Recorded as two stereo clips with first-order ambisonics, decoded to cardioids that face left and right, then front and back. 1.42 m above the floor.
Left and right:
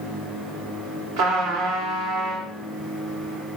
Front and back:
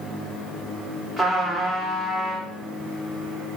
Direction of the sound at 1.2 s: 85° right.